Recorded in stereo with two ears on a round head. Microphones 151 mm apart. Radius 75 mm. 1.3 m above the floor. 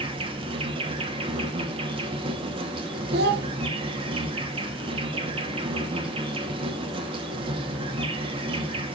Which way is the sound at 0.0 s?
30° right (ahead or behind).